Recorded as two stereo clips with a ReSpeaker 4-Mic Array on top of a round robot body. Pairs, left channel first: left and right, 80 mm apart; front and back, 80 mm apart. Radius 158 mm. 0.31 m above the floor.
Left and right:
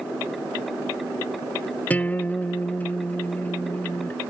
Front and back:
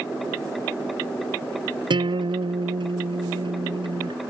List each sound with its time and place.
1.9 s a guitar: 160° left